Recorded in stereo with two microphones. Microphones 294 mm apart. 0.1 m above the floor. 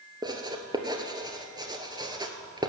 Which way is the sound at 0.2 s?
15° right (ahead or behind).